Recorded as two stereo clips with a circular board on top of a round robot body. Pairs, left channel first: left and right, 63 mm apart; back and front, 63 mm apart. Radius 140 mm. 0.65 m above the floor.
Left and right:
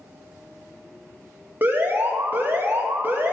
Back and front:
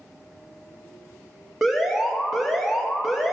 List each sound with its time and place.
1.6 s an alarm: 90° right, 1.6 m